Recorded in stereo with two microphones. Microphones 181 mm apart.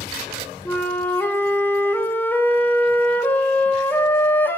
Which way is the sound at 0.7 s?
10° left (ahead or behind).